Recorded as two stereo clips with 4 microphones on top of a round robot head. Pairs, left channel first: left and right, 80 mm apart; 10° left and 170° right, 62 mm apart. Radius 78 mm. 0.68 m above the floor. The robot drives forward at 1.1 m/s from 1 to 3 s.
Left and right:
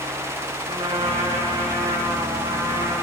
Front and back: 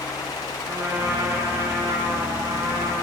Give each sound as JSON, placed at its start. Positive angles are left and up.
{"t": 0.7, "sound": "a trumpet", "azimuth_deg": -120, "distance_m": 4.0}